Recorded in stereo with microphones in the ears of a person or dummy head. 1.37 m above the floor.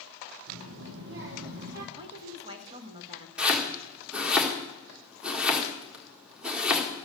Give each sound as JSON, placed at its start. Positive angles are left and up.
{"t": 0.5, "sound": "a child speaking", "side_deg": -70, "distance_m": 1.8}
{"t": 2.0, "sound": "a woman speaking", "side_deg": -30, "distance_m": 1.8}
{"t": 3.4, "sound": "chopping", "side_deg": 0, "distance_m": 1.8}